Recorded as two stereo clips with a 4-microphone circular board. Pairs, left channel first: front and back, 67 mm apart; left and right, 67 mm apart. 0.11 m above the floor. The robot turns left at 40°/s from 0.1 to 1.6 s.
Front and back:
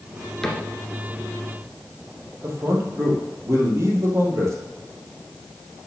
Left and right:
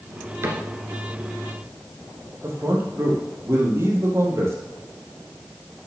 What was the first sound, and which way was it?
A cupboard door, 80° right.